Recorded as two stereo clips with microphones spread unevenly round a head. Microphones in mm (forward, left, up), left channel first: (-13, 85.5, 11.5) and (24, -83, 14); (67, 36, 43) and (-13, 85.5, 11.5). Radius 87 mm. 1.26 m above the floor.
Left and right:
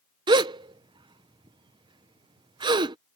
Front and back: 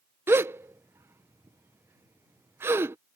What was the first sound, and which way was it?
A gasp, 145° right.